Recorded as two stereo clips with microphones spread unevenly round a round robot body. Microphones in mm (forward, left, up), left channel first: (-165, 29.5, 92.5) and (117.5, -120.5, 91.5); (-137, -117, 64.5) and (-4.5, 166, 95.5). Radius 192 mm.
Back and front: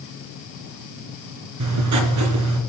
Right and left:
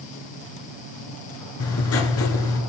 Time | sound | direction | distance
1.6 | writing | 65° right | 1.9 m